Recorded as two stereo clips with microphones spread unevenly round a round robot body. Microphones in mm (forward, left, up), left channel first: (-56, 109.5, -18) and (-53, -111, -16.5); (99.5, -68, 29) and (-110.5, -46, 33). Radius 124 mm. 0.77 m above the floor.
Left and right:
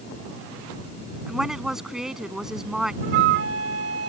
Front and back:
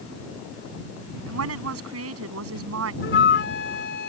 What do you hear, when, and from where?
1.3 s a woman speaking: 175° right
3.0 s a flute: 40° right